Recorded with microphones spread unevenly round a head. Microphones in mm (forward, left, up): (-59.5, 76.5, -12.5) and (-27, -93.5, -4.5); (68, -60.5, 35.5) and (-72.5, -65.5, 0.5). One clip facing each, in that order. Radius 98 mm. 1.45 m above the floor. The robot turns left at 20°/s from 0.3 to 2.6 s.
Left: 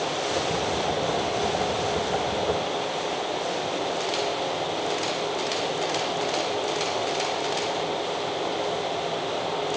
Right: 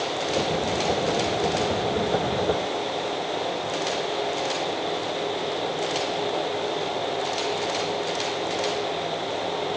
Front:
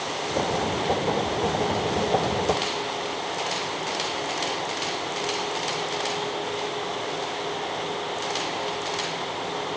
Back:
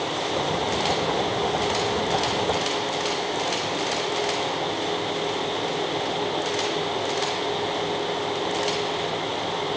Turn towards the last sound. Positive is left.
No sound to turn to.